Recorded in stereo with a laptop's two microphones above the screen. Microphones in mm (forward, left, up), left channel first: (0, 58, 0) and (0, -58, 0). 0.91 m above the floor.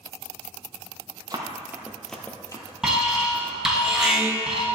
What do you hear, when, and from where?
1.3 s running footsteps: 35° right (ahead or behind), 1.2 m; by 3.8 s 60° left (ahead or behind), 2.0 m
2.8 s an alarm: 5° right (ahead or behind), 1.9 m